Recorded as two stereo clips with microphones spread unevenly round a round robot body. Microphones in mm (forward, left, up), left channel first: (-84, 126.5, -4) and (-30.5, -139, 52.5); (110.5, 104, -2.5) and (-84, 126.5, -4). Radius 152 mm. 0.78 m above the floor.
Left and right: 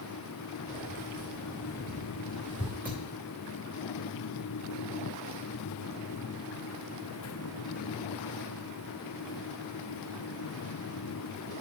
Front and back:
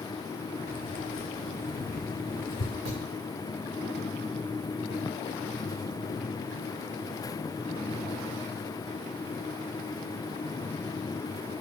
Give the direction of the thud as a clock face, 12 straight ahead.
5 o'clock.